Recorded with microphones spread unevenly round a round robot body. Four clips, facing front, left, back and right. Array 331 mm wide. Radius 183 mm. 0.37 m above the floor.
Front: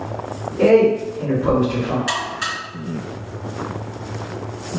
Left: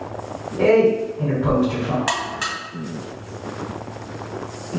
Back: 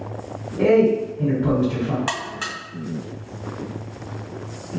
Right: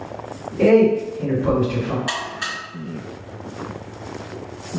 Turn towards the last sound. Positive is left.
turn(degrees=145)